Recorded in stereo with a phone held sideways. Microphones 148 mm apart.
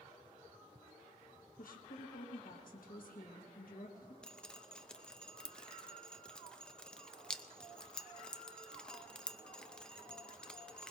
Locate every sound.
1.6 s a woman speaking: 75° left (ahead or behind), 1.3 m
4.2 s dripping: 5° left (ahead or behind), 0.6 m